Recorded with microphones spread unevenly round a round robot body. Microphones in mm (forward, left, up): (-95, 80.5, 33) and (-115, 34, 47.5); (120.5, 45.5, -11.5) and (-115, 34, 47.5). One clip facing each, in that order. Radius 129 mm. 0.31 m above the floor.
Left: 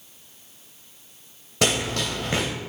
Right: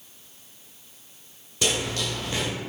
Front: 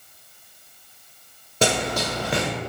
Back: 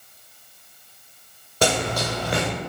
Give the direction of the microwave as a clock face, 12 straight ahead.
No microwave in this recording.